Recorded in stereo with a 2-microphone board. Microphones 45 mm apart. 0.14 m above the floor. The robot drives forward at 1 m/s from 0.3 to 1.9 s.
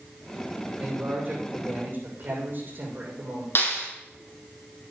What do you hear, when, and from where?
0.8 s a man speaking: 40° right (ahead or behind), 7.5 m; by 3.5 s 45° right (ahead or behind), 7 m
3.5 s a clap: 55° left (ahead or behind), 4.5 m